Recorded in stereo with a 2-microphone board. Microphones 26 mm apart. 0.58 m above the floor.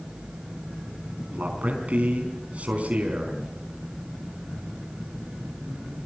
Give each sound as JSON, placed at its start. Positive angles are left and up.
{"t": 1.3, "sound": "a man speaking", "side_deg": -55, "distance_m": 4.5}